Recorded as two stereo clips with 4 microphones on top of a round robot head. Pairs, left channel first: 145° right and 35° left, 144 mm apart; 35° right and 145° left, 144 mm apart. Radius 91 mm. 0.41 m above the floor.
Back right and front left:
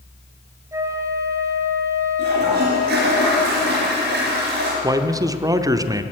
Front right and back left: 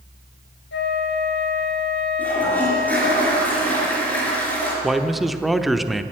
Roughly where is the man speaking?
Ahead left.